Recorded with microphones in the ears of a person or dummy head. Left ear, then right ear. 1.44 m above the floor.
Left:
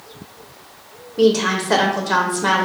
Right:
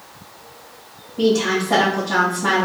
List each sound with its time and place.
1.2 s a woman speaking: 70° left (ahead or behind), 0.8 m